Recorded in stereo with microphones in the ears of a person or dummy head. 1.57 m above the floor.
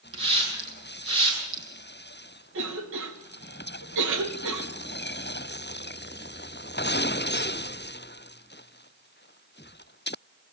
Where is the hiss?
30° right (ahead or behind), 8 m.